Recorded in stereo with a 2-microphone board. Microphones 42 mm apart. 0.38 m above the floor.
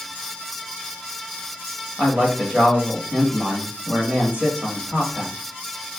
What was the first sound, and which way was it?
A man speaking, 30° right (ahead or behind).